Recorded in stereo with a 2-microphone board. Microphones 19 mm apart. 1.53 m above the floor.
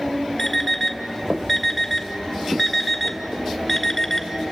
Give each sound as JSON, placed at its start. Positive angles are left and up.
{"t": 0.4, "sound": "an alarm clock", "side_deg": 15, "distance_m": 2.0}